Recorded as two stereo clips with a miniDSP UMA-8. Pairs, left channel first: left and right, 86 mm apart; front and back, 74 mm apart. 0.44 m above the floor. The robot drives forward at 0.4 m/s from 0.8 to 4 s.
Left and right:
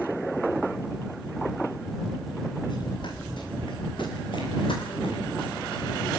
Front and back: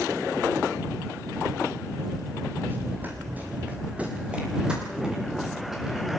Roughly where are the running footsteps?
Behind left.